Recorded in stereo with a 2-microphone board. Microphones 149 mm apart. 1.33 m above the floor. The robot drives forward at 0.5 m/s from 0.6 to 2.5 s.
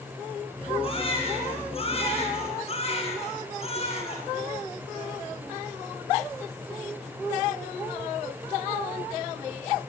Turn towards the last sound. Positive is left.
turn(degrees=45)  # may be behind; listen again after turning